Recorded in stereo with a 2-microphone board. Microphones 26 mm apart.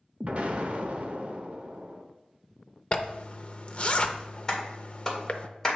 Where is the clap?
15° left (ahead or behind), 1.8 m.